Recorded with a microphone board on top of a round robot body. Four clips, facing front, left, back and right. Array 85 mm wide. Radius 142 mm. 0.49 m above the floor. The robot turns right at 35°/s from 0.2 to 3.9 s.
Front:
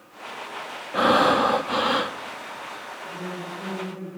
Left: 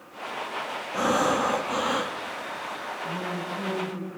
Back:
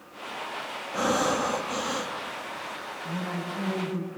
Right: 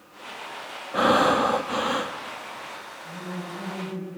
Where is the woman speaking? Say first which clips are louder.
Left 2 dB, back 1 dB; 150° left, 5.5 m; by 4.1 s straight behind, 5.5 m.